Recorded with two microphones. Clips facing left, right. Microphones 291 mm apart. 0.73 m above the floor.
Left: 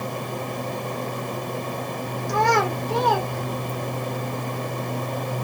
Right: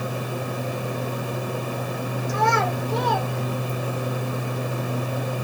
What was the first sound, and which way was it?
A child speaking, 70° left (ahead or behind).